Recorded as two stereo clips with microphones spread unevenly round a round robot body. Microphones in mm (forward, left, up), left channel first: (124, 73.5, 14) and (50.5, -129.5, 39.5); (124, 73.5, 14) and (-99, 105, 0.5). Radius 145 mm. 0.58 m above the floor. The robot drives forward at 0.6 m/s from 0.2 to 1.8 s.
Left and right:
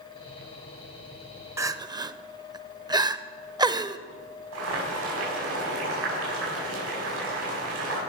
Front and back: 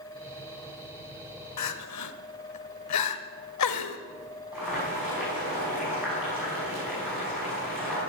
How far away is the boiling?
About 6 m.